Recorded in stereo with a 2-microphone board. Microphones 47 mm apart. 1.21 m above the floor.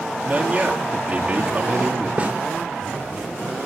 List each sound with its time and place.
0.2 s a man speaking: 30° right (ahead or behind), 2.5 m
2.2 s a snare drum: 30° right (ahead or behind), 1.8 m